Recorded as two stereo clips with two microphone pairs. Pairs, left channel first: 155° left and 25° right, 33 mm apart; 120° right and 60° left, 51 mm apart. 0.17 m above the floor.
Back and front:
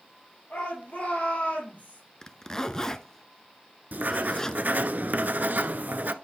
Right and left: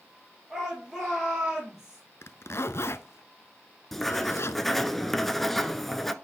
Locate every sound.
0.5 s a shout: 140° left, 4.5 m; by 2.0 s 135° left, 5.5 m
2.2 s a zipper: 135° right, 0.7 m
3.9 s writing: 35° right, 0.6 m